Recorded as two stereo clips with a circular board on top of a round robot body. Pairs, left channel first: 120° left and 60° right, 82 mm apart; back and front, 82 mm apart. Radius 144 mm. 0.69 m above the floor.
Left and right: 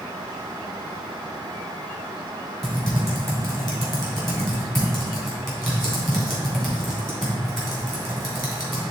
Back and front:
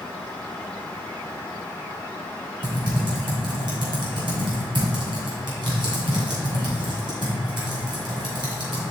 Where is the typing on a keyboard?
35° left, 2.5 m.